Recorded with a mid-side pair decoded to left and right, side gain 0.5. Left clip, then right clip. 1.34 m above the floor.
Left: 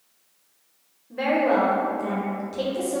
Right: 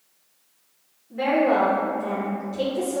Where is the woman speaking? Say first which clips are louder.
Right 1 dB; 40° left, 0.9 m.